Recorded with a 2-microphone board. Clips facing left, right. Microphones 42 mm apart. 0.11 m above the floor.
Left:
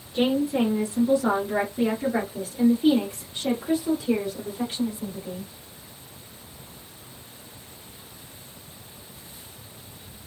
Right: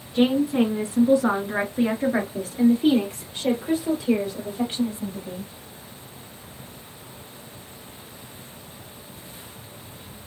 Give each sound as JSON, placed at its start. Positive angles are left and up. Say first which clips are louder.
{"t": 0.1, "sound": "a woman speaking", "louder": "right 3 dB", "side_deg": -15, "distance_m": 1.5}